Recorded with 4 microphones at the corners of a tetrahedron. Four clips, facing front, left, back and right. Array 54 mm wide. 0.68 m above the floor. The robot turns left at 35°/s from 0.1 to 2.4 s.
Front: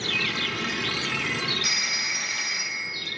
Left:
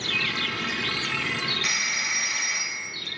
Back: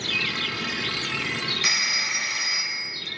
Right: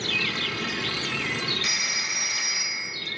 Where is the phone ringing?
170° left, 1.6 m; by 3.0 s 140° left, 1.6 m.